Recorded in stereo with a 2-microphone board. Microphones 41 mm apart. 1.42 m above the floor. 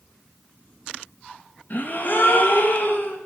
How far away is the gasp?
About 1.9 m.